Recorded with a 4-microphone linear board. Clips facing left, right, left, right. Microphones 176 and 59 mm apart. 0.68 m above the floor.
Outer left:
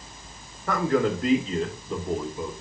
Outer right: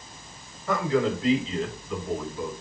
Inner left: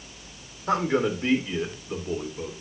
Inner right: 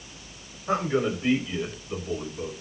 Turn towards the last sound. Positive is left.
turn(degrees=20)  # may be behind; listen again after turning